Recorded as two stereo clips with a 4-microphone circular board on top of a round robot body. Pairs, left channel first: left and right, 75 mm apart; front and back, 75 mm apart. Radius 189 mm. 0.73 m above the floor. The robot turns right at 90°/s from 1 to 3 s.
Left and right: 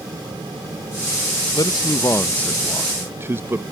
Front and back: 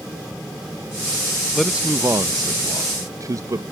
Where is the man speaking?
85° left; by 3.6 s 145° right.